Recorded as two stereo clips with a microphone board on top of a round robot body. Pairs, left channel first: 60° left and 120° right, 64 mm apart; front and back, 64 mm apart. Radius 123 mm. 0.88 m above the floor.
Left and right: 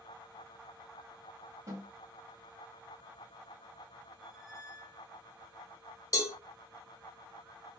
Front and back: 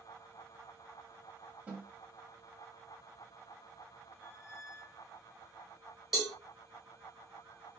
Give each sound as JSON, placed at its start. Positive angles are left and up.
{"t": 1.7, "sound": "a snare drum", "azimuth_deg": -115, "distance_m": 1.3}
{"t": 4.2, "sound": "a squeak", "azimuth_deg": -105, "distance_m": 0.8}
{"t": 6.1, "sound": "a cowbell", "azimuth_deg": 95, "distance_m": 1.1}